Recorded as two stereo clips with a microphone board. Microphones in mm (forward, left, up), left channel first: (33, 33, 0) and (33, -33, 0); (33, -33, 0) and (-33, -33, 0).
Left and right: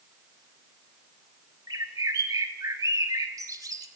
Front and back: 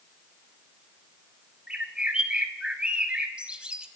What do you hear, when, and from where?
1.7 s a bird: 105° right, 0.8 m